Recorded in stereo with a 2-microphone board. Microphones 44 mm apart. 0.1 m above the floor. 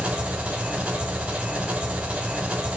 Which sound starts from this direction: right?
An engine running, at 0.0 s.